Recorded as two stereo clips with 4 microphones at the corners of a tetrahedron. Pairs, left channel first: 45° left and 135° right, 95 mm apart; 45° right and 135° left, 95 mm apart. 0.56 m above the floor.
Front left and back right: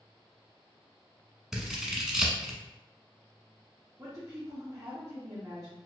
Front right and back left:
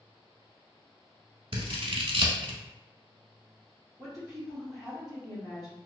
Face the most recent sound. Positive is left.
turn(degrees=180)